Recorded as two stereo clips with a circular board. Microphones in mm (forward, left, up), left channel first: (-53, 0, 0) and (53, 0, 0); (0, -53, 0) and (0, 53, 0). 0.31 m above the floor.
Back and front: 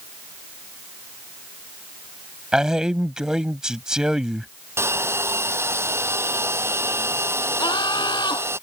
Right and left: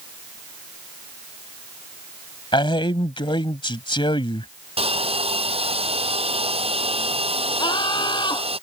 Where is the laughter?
135° right.